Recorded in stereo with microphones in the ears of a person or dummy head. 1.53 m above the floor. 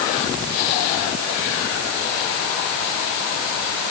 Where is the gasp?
I don't hear a gasp.